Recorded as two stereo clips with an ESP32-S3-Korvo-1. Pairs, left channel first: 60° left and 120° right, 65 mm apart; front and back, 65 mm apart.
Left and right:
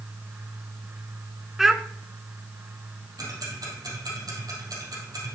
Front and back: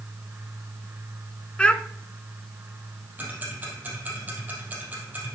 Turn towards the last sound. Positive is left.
turn(degrees=-115)